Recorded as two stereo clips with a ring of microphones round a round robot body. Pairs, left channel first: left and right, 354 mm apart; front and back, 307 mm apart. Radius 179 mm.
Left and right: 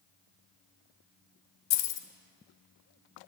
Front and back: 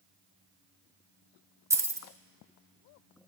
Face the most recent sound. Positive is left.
turn(degrees=100)